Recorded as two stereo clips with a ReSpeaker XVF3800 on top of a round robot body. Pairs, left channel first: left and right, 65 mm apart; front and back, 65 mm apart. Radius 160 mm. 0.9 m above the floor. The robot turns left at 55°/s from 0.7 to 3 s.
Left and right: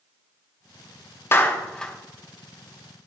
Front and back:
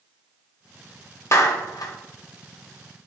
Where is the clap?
40° left, 1.2 m; by 1.9 s 5° left, 1.2 m.